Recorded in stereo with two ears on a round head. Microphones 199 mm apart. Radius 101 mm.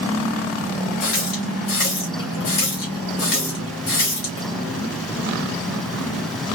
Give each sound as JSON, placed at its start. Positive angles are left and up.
{"t": 1.0, "sound": "a running tap", "side_deg": 60, "distance_m": 2.5}